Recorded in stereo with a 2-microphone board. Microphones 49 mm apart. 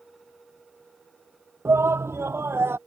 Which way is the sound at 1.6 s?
70° right (ahead or behind).